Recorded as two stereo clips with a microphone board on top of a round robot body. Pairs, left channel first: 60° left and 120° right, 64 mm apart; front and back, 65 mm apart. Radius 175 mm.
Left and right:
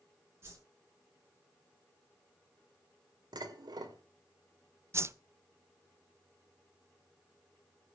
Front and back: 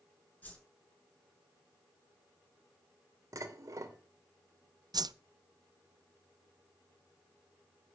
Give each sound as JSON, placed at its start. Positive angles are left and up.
{"t": 0.4, "sound": "a whoosh", "azimuth_deg": -65, "distance_m": 6.5}
{"t": 3.3, "sound": "dishes clattering", "azimuth_deg": -135, "distance_m": 2.5}
{"t": 4.9, "sound": "a whoosh", "azimuth_deg": -170, "distance_m": 0.8}